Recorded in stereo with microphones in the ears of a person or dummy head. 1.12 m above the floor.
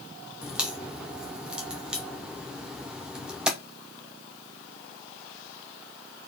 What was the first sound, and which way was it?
A crack, 5° right (ahead or behind).